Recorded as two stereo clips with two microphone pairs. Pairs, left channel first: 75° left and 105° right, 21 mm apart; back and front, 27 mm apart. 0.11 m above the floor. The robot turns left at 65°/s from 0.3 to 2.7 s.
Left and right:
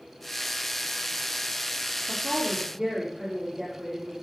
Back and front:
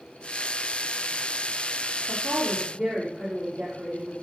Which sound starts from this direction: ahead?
A woman speaking, at 2.1 s.